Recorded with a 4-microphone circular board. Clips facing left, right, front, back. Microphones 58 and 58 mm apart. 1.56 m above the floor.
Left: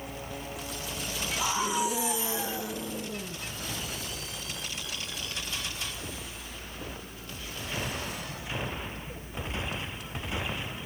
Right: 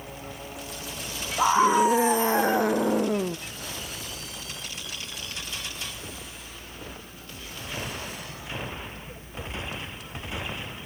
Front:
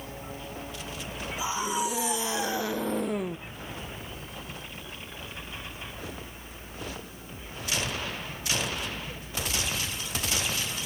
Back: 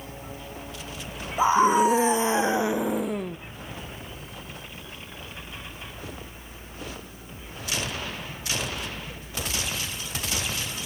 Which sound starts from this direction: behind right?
A scream, at 1.4 s.